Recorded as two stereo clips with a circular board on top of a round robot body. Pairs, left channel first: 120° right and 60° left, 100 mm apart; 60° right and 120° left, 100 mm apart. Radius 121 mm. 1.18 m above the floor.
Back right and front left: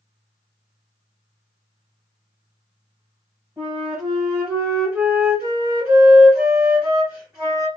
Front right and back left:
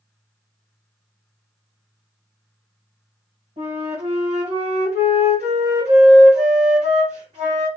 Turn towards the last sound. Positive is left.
turn(degrees=140)